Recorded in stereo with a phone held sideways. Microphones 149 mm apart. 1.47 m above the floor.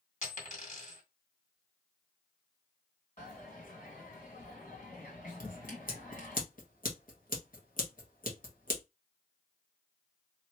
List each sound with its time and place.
0.2 s a dropped coin: 55° left (ahead or behind), 2 m
3.2 s a dropped coin: 65° left (ahead or behind), 2.5 m
5.4 s scissors: 70° left (ahead or behind), 1.5 m